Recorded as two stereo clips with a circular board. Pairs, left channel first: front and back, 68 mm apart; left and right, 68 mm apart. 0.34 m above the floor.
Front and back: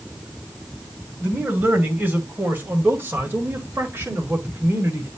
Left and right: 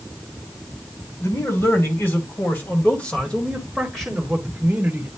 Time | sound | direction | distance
1.2 | a man speaking | 120° left | 2.5 m